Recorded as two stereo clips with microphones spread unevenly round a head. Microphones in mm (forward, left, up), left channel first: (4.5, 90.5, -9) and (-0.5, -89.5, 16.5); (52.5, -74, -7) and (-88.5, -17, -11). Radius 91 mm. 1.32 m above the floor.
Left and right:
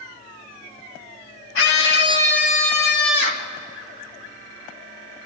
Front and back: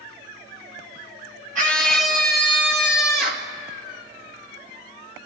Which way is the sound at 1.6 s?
110° left.